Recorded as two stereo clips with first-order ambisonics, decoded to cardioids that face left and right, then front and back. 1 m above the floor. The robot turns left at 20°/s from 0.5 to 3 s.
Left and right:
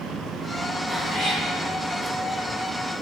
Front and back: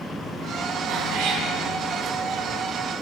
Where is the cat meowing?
175° left, 1.8 m; by 1.5 s 165° left, 1.8 m.